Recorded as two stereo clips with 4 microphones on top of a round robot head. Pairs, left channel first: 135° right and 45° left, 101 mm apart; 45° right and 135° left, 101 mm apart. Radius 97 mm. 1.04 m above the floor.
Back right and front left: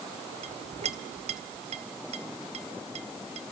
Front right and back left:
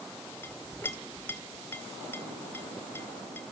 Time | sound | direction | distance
0.4 | a clink | 25° left | 2.0 m